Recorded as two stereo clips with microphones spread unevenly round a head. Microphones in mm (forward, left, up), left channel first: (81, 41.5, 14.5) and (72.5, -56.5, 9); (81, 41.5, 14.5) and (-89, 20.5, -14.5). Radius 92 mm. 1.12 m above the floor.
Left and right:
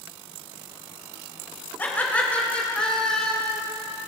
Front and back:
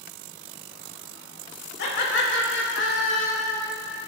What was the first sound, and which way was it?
Laughter, 15° left.